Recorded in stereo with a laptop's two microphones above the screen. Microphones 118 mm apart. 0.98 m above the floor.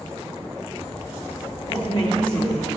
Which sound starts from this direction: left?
A woman speaking, at 1.7 s.